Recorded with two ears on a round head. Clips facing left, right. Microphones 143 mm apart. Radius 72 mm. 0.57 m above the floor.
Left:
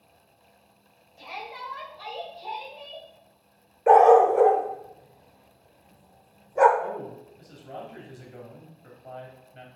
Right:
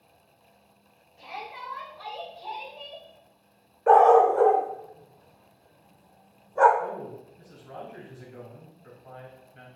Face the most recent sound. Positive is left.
turn(degrees=45)  # may be behind; listen again after turning